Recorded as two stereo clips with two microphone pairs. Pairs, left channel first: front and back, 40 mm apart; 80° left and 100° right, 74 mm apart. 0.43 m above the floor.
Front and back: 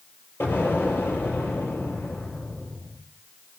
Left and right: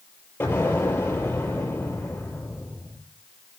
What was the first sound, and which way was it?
An explosion, 20° left.